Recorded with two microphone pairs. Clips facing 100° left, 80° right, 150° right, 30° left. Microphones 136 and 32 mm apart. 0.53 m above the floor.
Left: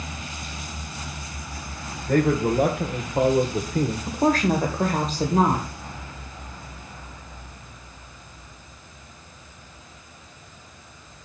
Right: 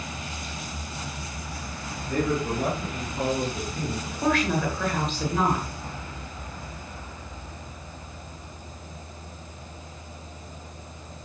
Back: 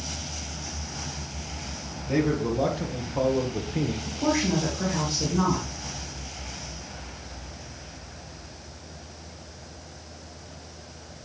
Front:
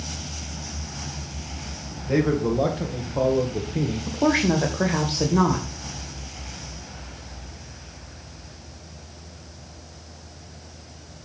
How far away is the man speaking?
About 2.5 m.